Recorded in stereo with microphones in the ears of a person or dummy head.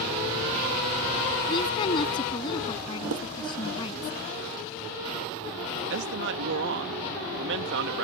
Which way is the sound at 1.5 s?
35° left (ahead or behind).